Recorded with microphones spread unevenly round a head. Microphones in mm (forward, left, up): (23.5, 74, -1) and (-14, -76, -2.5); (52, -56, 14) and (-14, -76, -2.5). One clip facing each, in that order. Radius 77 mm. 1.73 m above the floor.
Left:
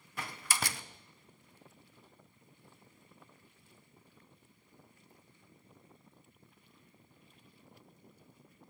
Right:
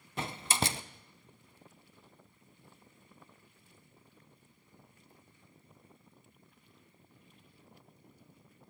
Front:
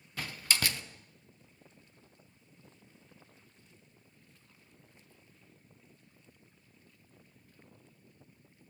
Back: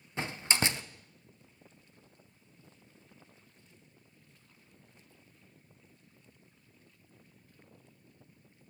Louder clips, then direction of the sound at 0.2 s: Right 5 dB, back 2 dB; 95° right.